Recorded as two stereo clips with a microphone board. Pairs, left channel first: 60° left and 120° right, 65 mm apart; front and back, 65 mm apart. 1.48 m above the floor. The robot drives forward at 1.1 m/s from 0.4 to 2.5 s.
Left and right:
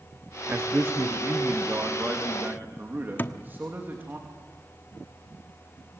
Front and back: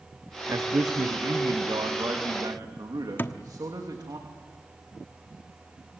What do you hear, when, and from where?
0.5 s a man speaking: 165° right, 0.8 m; by 4.2 s 175° right, 3 m
3.2 s a thud: 30° left, 1.1 m